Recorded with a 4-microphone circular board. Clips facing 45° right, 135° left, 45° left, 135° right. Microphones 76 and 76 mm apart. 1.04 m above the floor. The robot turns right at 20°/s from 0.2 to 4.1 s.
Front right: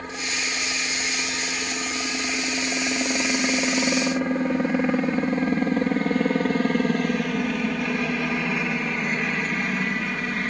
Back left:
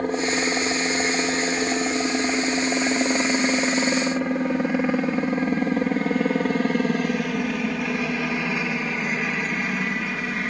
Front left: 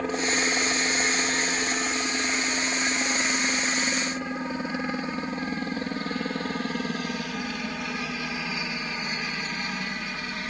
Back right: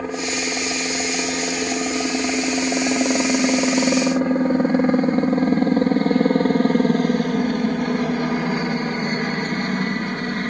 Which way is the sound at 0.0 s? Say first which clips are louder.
Back left 8 dB, back right 1 dB; 145° left.